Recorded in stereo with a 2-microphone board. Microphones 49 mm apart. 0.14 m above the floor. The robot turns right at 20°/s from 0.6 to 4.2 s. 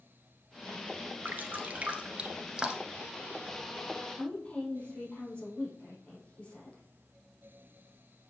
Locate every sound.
1.2 s dripping: 40° right (ahead or behind), 1.4 m; by 3.0 s 10° right (ahead or behind), 1.4 m
4.2 s a woman speaking: 25° left (ahead or behind), 6 m